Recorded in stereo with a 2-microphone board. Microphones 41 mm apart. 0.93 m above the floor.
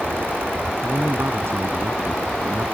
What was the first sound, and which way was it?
A man speaking, 75° right (ahead or behind).